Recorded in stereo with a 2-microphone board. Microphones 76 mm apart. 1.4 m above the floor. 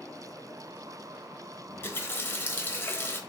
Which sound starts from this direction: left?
A running tap, at 1.7 s.